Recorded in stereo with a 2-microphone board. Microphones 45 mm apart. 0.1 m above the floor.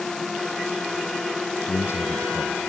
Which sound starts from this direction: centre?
A drone, at 0.0 s.